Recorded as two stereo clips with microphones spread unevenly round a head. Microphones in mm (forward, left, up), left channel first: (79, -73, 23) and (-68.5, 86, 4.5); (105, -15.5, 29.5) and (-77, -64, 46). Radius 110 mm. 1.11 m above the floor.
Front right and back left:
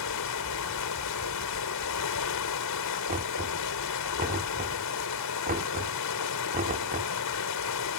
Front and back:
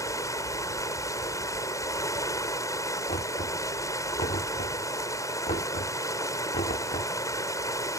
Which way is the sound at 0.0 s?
60° right.